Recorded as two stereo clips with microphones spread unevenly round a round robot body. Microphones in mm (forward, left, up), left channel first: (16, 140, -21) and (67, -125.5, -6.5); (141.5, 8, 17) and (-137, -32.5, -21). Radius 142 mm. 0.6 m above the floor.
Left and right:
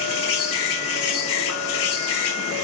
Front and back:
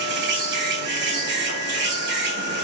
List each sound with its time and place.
0.0 s an insect: 140° left, 2 m